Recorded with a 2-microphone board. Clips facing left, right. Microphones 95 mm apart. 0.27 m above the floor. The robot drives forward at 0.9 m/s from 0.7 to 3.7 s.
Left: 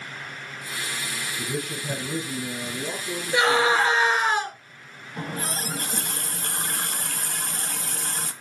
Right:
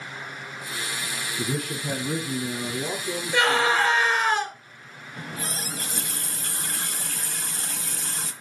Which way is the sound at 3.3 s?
10° left (ahead or behind).